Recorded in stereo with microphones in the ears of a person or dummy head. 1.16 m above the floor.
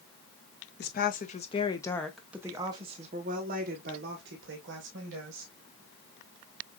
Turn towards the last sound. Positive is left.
turn(degrees=-65)  # may be behind; listen again after turning